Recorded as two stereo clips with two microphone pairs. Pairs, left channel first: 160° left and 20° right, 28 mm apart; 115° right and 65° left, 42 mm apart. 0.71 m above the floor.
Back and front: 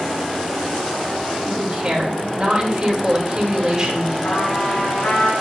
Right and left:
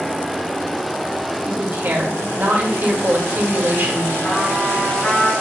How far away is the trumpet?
About 4 m.